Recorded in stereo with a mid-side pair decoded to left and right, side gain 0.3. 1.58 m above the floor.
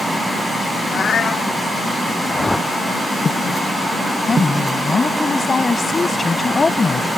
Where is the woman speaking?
40° left.